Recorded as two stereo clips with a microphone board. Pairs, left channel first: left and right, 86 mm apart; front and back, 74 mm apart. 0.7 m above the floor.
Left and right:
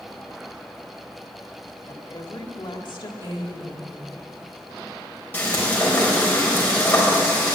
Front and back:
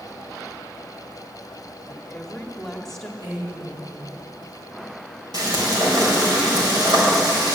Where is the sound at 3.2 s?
145° right, 7 m.